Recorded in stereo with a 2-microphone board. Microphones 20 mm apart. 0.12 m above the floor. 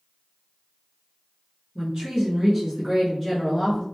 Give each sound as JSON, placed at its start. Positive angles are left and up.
{"t": 1.8, "sound": "a woman speaking", "side_deg": -35, "distance_m": 1.3}